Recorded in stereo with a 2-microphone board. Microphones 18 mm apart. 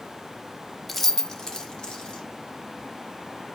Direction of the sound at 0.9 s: 10° left (ahead or behind).